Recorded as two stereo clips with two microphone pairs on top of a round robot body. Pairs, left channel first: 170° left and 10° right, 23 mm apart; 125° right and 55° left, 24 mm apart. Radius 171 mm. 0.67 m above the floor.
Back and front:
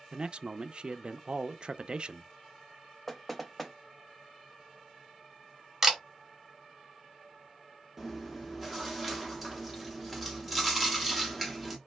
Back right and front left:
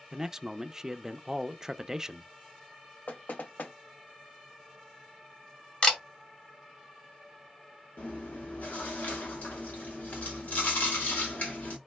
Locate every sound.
0.1 s a man speaking: 10° left, 0.5 m
3.1 s knocking: 105° right, 0.6 m
5.8 s a camera shutter: 80° right, 1.4 m
8.0 s chewing: 100° right, 0.8 m